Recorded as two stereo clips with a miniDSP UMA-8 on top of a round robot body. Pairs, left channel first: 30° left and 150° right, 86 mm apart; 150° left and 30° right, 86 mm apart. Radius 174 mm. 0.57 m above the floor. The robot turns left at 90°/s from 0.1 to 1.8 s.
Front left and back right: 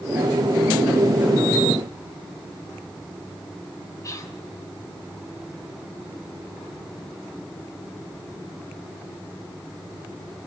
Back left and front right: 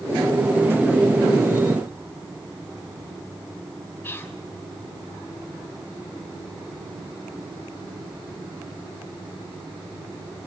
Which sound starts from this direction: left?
Whispering, at 4.0 s.